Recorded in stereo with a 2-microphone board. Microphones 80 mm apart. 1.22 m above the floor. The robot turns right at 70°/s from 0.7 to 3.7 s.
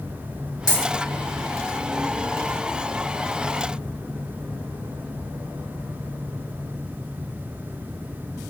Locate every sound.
0.7 s a dropped coin: 55° left (ahead or behind), 1.8 m; by 0.9 s 40° left (ahead or behind), 1.8 m